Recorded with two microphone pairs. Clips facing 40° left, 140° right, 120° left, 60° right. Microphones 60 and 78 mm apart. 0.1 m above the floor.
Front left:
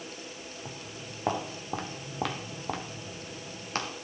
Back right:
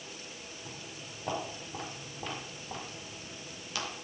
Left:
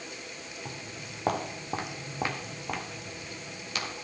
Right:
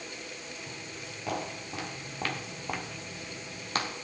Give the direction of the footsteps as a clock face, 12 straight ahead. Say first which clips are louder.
Front left 4 dB, left 1 dB; 9 o'clock.